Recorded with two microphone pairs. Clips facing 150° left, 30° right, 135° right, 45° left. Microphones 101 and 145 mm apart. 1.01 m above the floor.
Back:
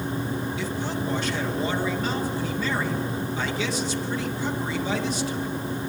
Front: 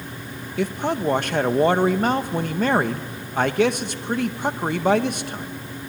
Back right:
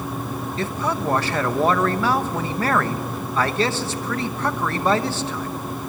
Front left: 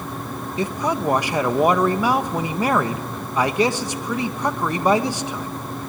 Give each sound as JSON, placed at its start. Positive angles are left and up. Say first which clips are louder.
{"t": 0.6, "sound": "a man speaking", "louder": "front 5 dB, front left 3 dB", "azimuth_deg": -25, "distance_m": 1.1}